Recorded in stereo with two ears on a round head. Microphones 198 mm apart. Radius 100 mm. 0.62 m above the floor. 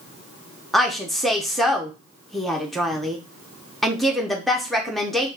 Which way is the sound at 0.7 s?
Centre (ahead or behind).